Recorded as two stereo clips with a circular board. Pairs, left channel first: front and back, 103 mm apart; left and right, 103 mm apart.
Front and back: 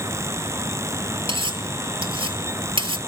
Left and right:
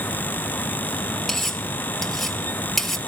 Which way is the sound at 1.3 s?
175° left.